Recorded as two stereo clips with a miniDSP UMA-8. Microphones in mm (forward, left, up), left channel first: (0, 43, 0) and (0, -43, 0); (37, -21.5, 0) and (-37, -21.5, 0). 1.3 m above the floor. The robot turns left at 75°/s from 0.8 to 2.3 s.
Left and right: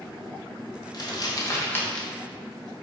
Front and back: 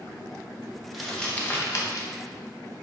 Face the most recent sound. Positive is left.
turn(degrees=-10)